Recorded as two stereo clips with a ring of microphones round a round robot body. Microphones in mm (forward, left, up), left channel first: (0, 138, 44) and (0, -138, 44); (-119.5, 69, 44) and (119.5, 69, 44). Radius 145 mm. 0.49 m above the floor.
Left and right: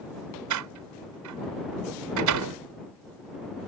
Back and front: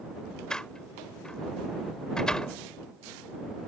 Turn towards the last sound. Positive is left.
turn(degrees=-95)